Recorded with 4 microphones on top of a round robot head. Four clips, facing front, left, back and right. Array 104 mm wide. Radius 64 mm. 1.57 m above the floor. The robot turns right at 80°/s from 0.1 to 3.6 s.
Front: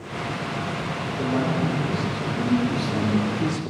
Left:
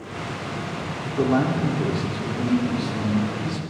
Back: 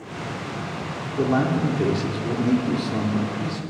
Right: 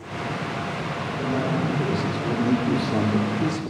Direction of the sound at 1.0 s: 110° left.